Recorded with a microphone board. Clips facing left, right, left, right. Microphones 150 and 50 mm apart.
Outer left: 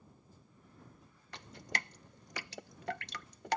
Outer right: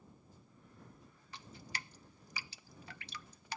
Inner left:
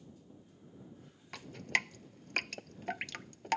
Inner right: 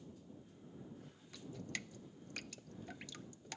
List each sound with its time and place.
1.3 s dripping: 80° left